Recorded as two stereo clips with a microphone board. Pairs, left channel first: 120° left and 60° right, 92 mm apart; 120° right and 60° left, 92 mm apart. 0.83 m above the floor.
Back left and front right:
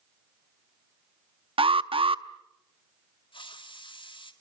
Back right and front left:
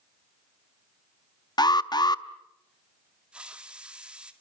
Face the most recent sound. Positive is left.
turn(degrees=140)